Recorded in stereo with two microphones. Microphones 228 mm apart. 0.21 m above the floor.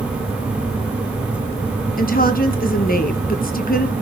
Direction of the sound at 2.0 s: 40° left (ahead or behind).